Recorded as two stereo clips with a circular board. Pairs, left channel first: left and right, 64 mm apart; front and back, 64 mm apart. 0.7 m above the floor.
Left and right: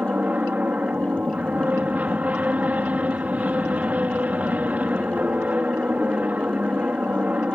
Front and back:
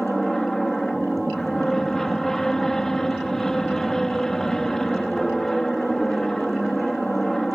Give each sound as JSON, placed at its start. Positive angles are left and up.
{"t": 0.0, "sound": "an aircraft", "azimuth_deg": -75}